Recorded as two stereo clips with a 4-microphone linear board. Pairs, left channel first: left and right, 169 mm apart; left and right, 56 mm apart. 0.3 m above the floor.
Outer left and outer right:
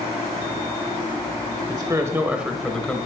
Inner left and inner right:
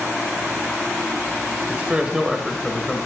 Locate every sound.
1.7 s a man speaking: 25° right (ahead or behind), 0.9 m; by 3.1 s 10° left (ahead or behind), 1.1 m